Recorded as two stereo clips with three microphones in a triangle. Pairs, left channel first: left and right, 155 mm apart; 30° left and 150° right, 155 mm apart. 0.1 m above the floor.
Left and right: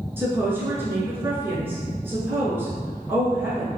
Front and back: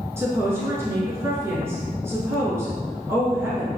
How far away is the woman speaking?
About 1.1 m.